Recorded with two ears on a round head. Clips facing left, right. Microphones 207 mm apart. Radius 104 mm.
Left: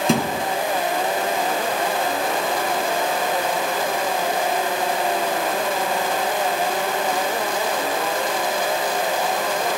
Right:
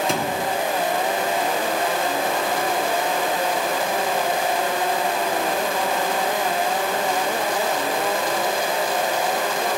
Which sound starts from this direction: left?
A thud, at 0.1 s.